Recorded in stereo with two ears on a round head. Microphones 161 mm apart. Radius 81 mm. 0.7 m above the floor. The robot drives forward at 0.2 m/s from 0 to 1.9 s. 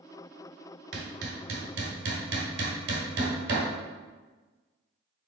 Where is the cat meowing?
I don't hear a cat meowing.